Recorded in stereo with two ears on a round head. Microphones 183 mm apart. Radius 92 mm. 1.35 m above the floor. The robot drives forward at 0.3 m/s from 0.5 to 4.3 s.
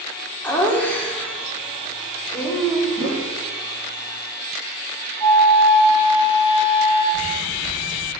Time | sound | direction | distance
0.4 | laughter | 10° left (ahead or behind) | 1.6 m
3.0 | a whoosh | 25° right (ahead or behind) | 1.6 m
5.2 | a flute | 10° left (ahead or behind) | 3.5 m
7.1 | footsteps | 45° right (ahead or behind) | 3 m